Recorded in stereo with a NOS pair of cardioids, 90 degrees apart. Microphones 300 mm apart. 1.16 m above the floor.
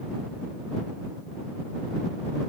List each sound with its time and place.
Only background noise.